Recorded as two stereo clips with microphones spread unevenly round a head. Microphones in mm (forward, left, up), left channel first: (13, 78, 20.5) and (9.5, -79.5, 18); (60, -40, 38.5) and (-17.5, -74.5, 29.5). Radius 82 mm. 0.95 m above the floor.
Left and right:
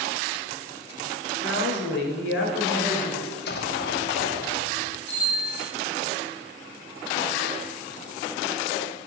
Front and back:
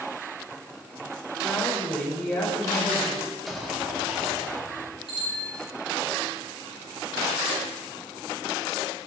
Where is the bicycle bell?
170° left, 6 m.